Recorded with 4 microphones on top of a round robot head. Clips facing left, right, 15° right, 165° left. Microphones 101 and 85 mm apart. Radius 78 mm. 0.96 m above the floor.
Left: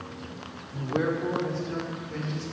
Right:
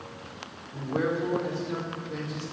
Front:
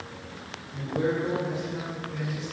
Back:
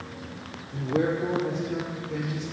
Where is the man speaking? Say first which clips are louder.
Left 1 dB, back 2 dB; 170° left, 2 m; by 2.4 s 160° right, 2.5 m.